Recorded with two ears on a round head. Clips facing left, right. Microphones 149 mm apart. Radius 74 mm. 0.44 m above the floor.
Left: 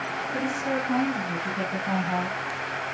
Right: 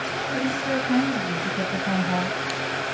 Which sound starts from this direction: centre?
A woman speaking, at 0.3 s.